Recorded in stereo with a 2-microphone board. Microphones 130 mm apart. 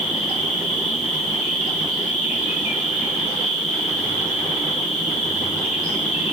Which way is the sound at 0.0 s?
70° left (ahead or behind).